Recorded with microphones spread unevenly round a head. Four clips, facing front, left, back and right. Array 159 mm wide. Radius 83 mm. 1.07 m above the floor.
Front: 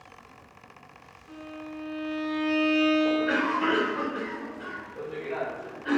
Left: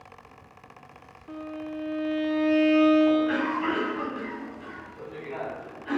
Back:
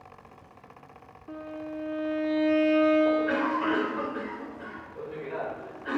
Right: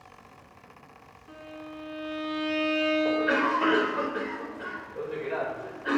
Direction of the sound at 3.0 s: 70° right.